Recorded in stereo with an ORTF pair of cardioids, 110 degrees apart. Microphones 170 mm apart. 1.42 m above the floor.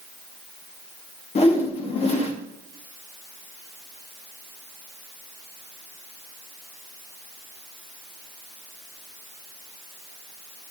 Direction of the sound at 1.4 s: 40° left.